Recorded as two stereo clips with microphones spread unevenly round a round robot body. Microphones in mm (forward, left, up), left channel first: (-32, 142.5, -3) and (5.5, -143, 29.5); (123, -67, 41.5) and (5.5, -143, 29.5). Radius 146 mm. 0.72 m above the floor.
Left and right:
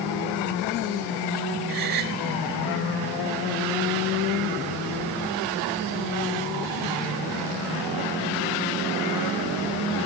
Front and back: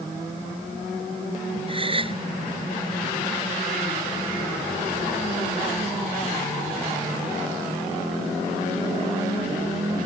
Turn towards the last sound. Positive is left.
turn(degrees=-95)